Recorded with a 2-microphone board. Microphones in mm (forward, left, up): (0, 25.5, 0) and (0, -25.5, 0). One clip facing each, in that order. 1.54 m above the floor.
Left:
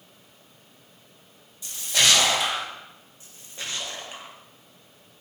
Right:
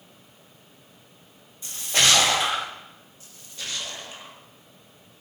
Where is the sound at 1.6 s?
35° right (ahead or behind), 2 m.